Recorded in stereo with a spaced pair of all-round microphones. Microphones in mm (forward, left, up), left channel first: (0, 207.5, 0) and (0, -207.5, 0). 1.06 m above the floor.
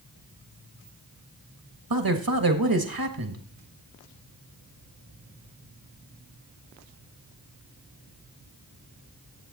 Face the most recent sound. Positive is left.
turn(degrees=-55)  # may be behind; listen again after turning